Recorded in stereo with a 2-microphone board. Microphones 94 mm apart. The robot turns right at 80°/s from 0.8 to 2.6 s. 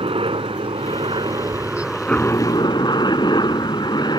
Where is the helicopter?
95° right; by 4.2 s 50° left.